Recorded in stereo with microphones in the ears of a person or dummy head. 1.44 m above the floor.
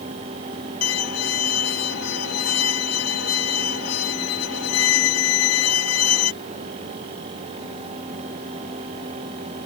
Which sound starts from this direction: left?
A violin, at 0.8 s.